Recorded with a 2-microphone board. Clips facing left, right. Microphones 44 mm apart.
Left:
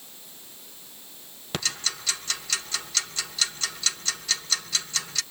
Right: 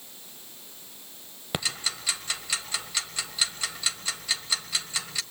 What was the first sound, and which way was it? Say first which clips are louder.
Ticking: even; 10° right (ahead or behind).